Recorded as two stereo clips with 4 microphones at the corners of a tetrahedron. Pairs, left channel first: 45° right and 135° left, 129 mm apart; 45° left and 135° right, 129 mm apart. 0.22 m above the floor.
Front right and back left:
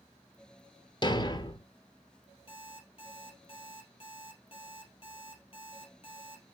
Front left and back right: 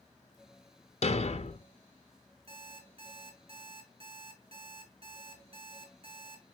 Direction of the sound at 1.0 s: 10° left.